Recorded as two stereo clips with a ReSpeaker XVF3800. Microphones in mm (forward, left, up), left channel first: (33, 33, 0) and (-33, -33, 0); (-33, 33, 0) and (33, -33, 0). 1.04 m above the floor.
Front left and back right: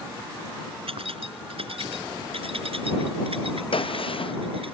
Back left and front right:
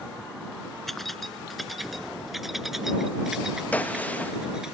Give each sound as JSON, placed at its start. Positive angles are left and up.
{"t": 0.9, "sound": "keys jangling", "azimuth_deg": -135}
{"t": 3.7, "sound": "a gunshot", "azimuth_deg": 60}